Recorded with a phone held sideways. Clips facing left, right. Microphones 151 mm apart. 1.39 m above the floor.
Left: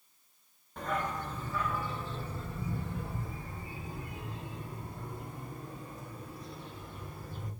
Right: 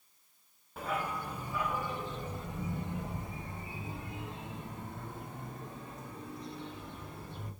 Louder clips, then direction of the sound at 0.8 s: Left 1 dB; 5° right (ahead or behind).